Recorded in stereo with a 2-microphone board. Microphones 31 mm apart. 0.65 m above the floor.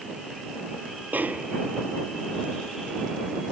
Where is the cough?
I don't hear a cough.